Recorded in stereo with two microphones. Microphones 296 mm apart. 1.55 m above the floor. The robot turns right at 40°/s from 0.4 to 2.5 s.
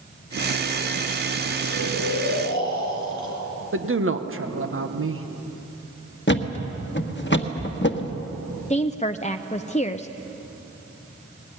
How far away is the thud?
About 1.2 m.